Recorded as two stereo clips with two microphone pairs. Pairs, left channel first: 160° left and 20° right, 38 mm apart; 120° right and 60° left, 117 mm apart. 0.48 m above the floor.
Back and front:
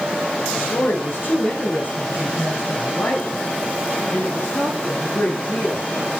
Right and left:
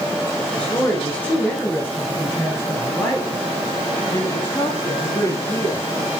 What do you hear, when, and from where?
0.6 s a woman speaking: 155° left, 1.8 m; by 5.9 s 170° left, 5 m